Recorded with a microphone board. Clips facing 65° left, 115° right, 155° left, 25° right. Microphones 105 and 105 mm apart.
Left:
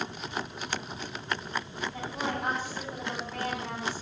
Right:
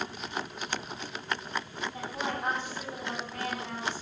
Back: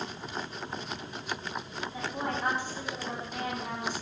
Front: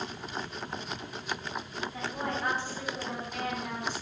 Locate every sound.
1.9 s a woman speaking: 85° left, 5.5 m